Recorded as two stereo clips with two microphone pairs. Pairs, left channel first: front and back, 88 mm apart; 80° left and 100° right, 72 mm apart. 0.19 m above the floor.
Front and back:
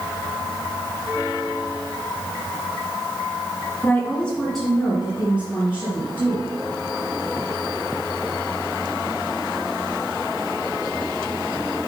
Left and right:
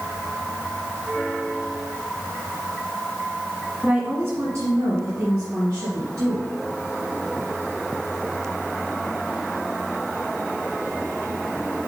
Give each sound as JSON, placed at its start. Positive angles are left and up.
{"t": 3.8, "sound": "a woman speaking", "azimuth_deg": -45, "distance_m": 1.4}